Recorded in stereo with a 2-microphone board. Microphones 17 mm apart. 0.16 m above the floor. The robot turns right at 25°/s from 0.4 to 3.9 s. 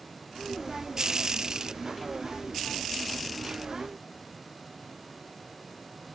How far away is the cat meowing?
No cat meowing in this recording.